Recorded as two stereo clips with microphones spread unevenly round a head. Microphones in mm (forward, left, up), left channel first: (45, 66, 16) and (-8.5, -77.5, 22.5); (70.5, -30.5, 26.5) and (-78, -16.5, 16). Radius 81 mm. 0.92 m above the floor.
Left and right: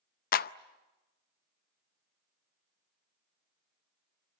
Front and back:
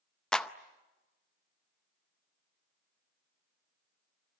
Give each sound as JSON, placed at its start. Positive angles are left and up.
{"t": 0.3, "sound": "a clap", "azimuth_deg": 80, "distance_m": 0.6}